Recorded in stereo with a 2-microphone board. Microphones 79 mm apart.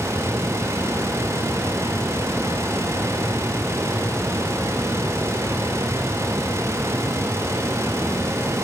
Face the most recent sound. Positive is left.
No sound to turn to.